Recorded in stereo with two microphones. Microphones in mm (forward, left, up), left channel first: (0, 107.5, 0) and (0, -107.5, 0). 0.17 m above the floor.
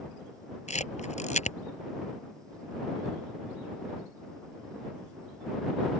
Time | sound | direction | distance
0.7 | a camera shutter | 30° left (ahead or behind) | ?